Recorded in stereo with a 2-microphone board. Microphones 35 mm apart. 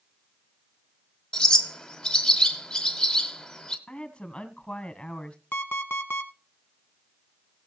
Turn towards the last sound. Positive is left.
turn(degrees=75)  # may be behind; listen again after turning